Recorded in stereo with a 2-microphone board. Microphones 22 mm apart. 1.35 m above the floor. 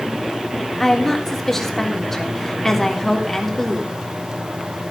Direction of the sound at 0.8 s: 15° left (ahead or behind).